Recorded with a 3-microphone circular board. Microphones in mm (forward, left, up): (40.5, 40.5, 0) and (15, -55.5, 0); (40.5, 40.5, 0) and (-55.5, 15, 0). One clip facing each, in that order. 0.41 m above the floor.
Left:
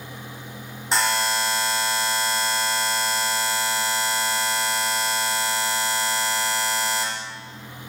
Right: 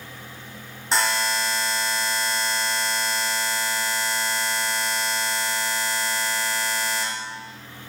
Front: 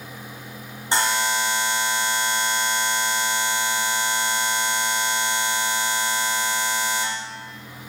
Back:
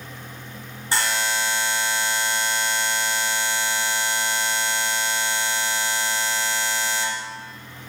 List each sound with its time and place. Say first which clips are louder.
0.9 s a buzzer: left 1 dB, front 2 dB; 10° right, 0.7 m